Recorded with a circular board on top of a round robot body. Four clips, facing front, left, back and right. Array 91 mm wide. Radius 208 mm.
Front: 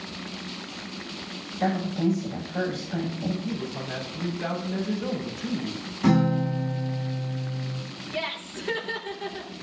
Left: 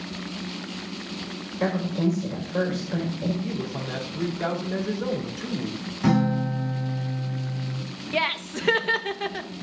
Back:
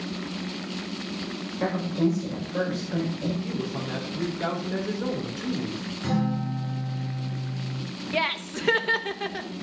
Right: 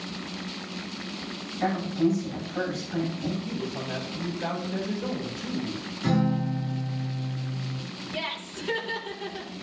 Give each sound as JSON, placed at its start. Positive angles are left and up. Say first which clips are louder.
{"t": 1.6, "sound": "a woman speaking", "louder": "even, even", "azimuth_deg": 115, "distance_m": 4.5}
{"t": 3.4, "sound": "a man speaking", "louder": "left 2 dB, back 1 dB", "azimuth_deg": 130, "distance_m": 3.0}
{"t": 6.0, "sound": "a guitar", "louder": "left 3 dB, front 6 dB", "azimuth_deg": 60, "distance_m": 2.5}
{"t": 8.1, "sound": "laughter", "louder": "left 9 dB, back 5 dB", "azimuth_deg": 125, "distance_m": 1.2}